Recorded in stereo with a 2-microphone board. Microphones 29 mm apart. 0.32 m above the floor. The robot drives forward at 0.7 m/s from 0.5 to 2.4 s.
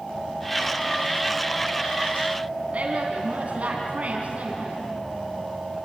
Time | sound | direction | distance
2.7 | a woman speaking | 50° right (ahead or behind) | 3.5 m